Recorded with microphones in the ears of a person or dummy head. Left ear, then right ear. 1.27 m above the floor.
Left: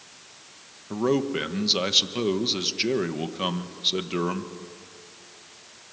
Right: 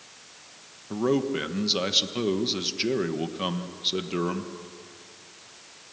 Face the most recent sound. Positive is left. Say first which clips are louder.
# left 1 dB
turn(degrees=5)  # may be behind; listen again after turning